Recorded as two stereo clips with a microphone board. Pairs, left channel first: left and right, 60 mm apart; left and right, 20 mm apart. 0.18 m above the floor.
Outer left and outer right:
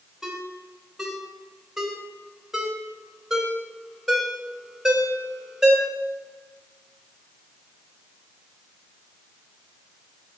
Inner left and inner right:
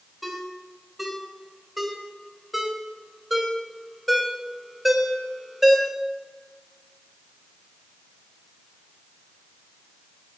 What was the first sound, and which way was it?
A ringtone, 5° right (ahead or behind).